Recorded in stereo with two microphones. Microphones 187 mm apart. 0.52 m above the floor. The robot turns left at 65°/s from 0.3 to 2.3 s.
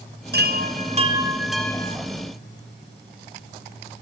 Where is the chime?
100° right, 2.5 m; by 2.0 s 155° left, 2.5 m.